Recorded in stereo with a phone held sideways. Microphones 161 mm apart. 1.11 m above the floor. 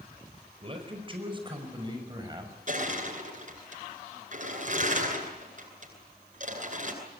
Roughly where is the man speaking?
Right.